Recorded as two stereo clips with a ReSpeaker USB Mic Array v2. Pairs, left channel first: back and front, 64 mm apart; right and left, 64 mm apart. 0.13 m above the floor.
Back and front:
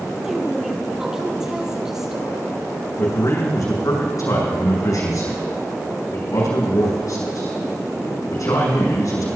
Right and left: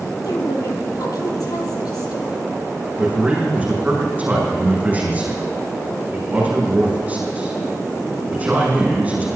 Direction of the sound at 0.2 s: 80° right.